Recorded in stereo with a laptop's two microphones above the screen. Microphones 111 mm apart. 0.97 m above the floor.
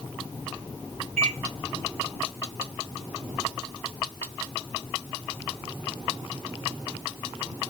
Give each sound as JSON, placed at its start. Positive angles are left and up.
{"t": 1.2, "sound": "a microwave", "side_deg": -70, "distance_m": 0.9}